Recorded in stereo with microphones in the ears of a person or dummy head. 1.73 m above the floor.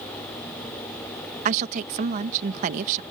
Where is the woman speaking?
50° right (ahead or behind).